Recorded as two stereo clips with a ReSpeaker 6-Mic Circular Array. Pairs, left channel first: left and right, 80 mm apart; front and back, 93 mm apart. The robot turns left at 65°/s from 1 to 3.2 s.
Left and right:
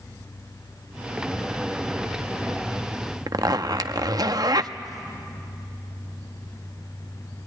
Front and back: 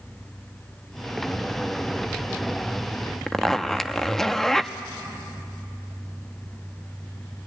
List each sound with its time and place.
3.3 s a zipper: 85° right, 0.7 m